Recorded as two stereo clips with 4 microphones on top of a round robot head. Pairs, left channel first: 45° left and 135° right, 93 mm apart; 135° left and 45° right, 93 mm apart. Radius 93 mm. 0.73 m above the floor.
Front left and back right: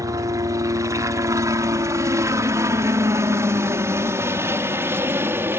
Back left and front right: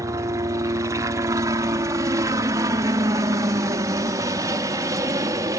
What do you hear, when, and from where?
0.0 s a helicopter: 90° right; by 5.6 s 80° right